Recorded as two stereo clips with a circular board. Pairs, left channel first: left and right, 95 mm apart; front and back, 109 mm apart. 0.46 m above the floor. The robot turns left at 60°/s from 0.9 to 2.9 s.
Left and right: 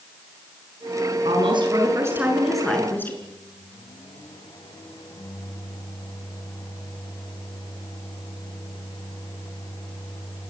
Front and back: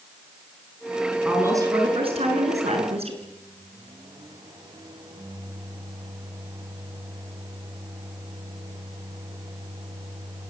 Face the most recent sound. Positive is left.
turn(degrees=130)